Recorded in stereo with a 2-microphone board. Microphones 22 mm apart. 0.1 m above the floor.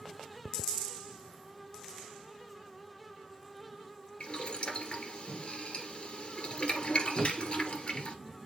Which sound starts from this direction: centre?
A thud, at 7.2 s.